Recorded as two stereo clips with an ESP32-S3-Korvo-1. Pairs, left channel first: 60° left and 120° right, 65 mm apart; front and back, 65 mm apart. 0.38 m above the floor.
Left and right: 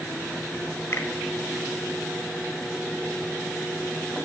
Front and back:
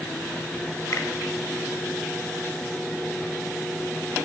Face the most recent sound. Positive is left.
turn(degrees=20)